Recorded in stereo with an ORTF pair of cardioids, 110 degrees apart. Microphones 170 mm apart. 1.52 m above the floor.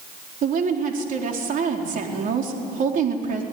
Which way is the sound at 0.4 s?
50° right.